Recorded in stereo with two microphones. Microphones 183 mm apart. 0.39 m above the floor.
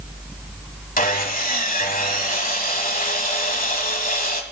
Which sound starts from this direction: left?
Sawing, at 1.0 s.